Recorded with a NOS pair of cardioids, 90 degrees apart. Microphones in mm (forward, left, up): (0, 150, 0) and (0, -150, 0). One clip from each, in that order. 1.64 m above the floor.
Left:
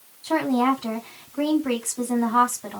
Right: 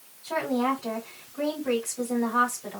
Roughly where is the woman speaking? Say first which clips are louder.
Left 5 dB; ahead left.